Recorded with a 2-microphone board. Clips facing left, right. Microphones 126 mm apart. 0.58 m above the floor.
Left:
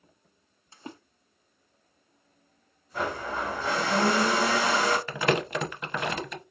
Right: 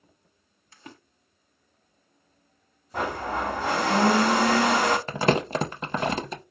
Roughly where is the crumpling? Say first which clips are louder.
Right 3 dB; right.